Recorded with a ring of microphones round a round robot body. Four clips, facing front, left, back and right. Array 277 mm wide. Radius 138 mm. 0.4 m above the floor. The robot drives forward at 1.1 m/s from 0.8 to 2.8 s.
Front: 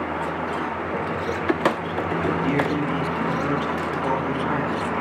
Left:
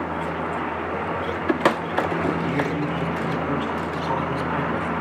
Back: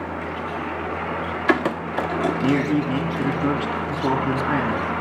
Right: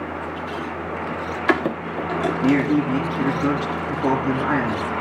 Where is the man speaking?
125° right, 4 m; by 4.9 s 130° right, 4.5 m.